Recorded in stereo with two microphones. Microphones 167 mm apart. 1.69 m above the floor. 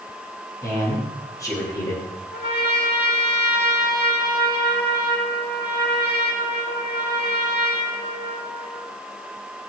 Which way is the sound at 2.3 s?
80° left.